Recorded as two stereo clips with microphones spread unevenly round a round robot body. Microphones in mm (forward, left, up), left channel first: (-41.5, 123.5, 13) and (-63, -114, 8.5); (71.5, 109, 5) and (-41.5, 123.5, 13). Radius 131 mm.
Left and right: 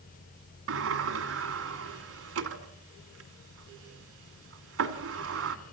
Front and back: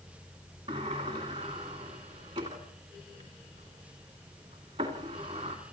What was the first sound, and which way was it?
A sliding door, 120° right.